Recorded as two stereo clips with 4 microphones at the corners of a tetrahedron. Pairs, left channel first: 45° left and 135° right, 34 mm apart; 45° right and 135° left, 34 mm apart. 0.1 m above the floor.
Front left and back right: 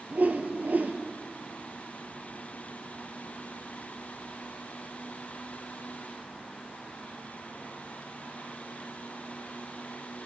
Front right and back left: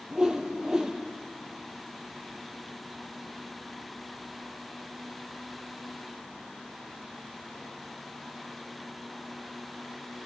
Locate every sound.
0.1 s a whoosh: 155° right, 0.5 m